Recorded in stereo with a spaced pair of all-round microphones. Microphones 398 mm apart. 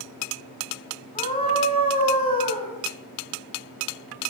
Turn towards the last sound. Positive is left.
turn(degrees=15)  # may be behind; listen again after turning